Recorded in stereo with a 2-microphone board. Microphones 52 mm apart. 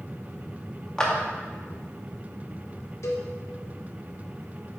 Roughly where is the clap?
Centre.